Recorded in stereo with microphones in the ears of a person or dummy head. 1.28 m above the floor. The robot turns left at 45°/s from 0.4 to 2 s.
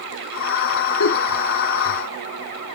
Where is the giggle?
70° left (ahead or behind), 1.7 m.